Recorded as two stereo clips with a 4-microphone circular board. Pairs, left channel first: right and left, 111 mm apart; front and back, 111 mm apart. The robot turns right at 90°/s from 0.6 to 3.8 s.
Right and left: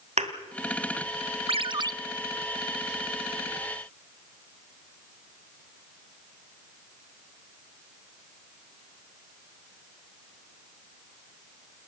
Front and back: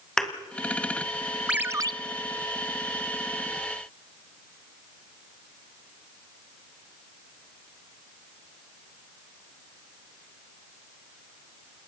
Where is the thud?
85° left, 1.9 m.